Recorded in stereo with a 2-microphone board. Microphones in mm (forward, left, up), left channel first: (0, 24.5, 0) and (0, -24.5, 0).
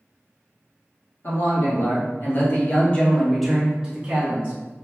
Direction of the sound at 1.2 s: 60° left (ahead or behind).